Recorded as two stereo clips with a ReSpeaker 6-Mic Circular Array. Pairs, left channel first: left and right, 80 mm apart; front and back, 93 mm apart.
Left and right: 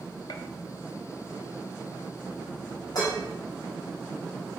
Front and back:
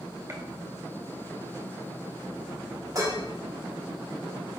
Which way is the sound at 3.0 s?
130° left.